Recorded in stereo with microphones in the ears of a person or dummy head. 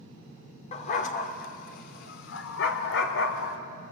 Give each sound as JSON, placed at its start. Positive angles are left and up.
{"t": 0.7, "sound": "a dog barking", "side_deg": 45, "distance_m": 1.8}